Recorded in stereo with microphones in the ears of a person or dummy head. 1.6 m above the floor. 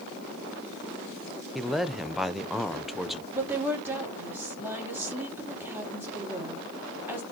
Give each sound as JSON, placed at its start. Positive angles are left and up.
{"t": 1.6, "sound": "a man speaking", "side_deg": 0, "distance_m": 0.8}
{"t": 3.3, "sound": "a woman speaking", "side_deg": -10, "distance_m": 3.0}